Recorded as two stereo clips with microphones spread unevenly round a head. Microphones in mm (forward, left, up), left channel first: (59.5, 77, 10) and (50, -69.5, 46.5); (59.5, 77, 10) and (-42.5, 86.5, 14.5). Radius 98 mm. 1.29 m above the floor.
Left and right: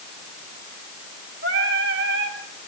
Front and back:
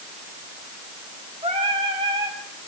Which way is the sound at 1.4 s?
120° right.